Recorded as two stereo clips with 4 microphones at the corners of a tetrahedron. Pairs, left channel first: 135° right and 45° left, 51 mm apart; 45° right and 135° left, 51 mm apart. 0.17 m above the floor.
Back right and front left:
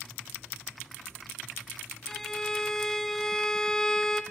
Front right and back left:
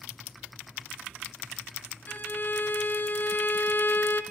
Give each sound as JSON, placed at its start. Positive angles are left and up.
{"t": 2.1, "sound": "a violin", "azimuth_deg": -60, "distance_m": 1.8}